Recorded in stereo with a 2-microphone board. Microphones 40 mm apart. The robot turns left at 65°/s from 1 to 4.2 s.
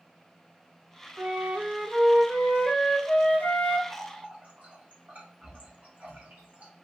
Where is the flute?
115° right, 0.7 m; by 3.8 s 75° left, 0.7 m.